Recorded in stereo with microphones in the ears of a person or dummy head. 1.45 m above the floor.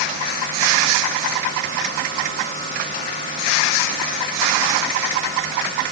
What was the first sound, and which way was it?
Only background noise.